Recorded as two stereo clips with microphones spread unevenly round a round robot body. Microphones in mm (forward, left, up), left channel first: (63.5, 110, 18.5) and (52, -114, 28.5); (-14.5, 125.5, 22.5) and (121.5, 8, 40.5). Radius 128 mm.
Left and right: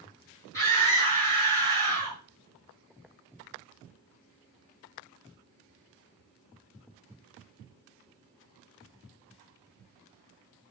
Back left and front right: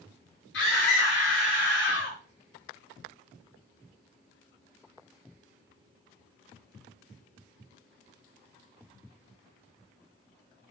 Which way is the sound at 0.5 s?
165° left.